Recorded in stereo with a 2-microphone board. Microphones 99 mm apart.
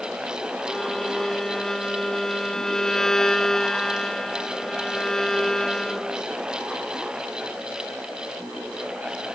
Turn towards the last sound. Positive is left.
turn(degrees=5)  # may be behind; listen again after turning